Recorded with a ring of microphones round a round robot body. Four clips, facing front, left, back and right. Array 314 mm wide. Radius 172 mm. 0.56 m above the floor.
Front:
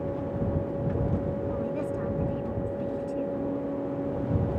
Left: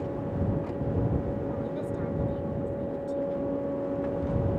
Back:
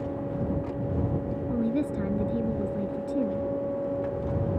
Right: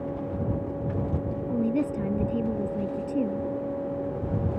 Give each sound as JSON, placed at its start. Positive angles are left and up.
{"t": 1.5, "sound": "a woman speaking", "azimuth_deg": -125}